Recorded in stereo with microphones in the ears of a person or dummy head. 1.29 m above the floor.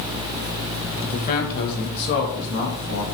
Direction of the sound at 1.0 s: 35° left (ahead or behind).